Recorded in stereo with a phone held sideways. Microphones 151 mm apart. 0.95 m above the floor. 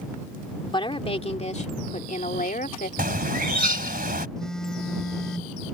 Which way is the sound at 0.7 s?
35° left (ahead or behind).